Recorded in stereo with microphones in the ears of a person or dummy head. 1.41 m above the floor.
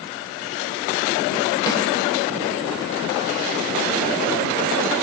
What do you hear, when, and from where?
1.7 s a snare drum: 20° left (ahead or behind), 3 m